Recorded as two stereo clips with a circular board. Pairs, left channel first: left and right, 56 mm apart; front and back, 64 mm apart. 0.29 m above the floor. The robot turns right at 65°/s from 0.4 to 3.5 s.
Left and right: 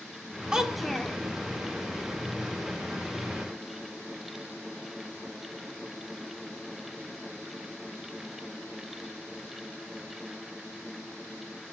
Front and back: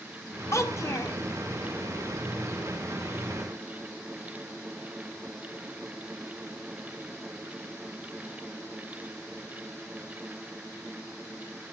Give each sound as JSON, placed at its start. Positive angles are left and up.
{"t": 0.5, "sound": "a child speaking", "azimuth_deg": -20, "distance_m": 1.1}